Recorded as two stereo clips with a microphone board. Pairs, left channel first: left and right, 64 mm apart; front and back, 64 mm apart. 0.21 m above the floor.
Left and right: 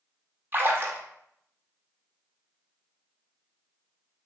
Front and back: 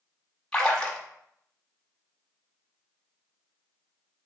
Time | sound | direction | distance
0.5 | a splash | 70° right | 0.9 m